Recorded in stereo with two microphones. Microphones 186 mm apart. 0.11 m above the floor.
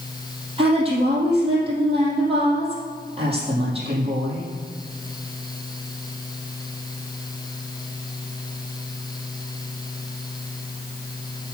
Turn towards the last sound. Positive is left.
turn(degrees=-35)  # may be behind; listen again after turning